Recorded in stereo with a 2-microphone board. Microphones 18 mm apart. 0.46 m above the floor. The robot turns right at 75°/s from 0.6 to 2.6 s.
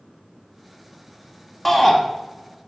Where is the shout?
10° left (ahead or behind), 1.4 m; by 2.0 s centre (ahead or behind), 1.4 m.